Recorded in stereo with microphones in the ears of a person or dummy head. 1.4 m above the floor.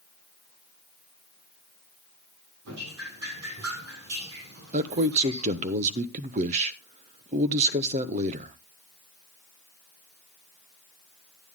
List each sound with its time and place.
2.6 s dripping: 85° right, 9 m
4.7 s a man speaking: 35° right (ahead or behind), 1.2 m